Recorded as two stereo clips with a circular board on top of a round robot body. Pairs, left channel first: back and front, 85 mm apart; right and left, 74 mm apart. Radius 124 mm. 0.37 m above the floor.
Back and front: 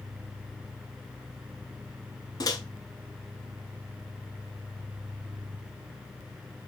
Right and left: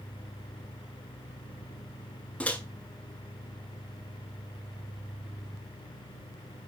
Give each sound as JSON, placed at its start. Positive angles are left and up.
{"t": 2.4, "sound": "a microwave", "azimuth_deg": -160, "distance_m": 1.1}